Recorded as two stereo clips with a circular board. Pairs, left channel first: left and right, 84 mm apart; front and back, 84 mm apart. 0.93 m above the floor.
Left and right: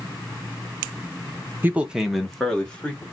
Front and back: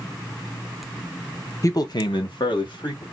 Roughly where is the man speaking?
Ahead right.